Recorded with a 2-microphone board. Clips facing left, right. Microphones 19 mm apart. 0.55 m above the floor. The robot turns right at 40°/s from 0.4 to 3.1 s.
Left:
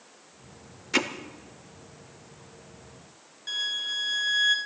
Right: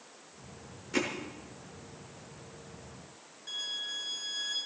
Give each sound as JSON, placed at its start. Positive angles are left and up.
{"t": 0.9, "sound": "hammering", "side_deg": 60, "distance_m": 1.1}
{"t": 3.5, "sound": "a violin", "side_deg": 35, "distance_m": 1.5}